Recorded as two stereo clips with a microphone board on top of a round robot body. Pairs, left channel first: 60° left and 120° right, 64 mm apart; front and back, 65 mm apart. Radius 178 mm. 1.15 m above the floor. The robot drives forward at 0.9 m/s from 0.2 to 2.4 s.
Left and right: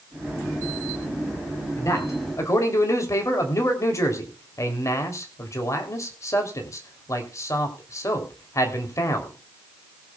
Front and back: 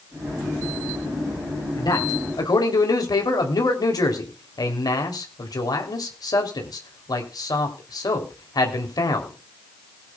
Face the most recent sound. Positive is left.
turn(degrees=20)